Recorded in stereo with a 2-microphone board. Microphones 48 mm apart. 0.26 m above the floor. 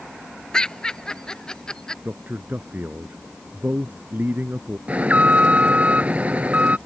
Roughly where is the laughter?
Centre.